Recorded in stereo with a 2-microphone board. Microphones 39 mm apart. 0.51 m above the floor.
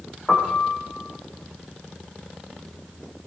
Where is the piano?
15° left (ahead or behind), 8.5 m.